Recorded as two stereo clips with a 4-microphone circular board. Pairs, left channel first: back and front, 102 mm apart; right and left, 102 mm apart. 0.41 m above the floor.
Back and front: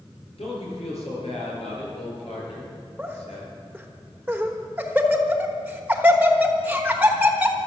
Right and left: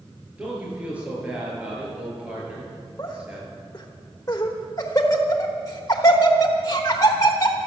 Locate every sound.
0.4 s a man speaking: 165° left, 6.5 m
3.0 s laughter: 65° right, 1.2 m